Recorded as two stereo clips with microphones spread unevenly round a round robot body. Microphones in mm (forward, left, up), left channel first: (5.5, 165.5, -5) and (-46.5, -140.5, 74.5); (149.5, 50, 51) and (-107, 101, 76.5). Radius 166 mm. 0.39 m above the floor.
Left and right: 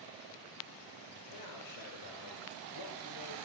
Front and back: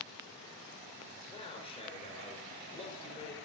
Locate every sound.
1.3 s a man speaking: 60° left, 5.5 m